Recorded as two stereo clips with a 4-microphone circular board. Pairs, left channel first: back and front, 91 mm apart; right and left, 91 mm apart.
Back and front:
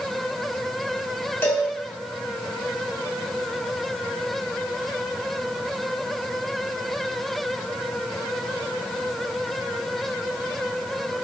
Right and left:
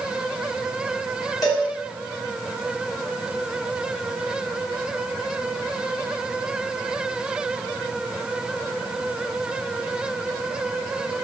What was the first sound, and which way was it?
A cowbell, 125° right.